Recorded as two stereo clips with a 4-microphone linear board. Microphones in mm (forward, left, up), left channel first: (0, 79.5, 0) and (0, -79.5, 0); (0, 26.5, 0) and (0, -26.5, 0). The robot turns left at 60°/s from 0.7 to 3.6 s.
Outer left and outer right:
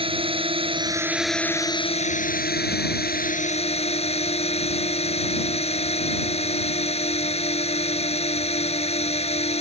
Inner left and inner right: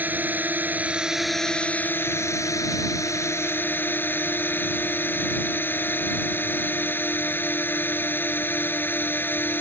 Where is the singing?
No singing in this recording.